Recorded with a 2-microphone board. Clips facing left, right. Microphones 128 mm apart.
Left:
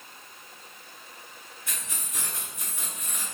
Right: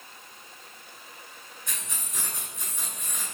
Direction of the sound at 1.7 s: 5° left (ahead or behind).